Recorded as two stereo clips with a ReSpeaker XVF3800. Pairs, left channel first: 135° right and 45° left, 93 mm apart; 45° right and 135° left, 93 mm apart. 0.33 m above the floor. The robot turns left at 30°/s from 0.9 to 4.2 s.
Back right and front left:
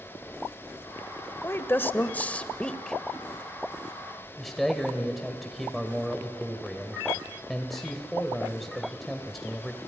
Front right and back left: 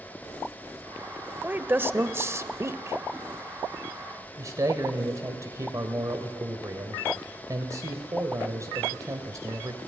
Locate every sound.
1.4 s a woman speaking: 170° right, 0.9 m; by 3.0 s 145° left, 0.9 m
4.4 s a man speaking: 140° left, 1.7 m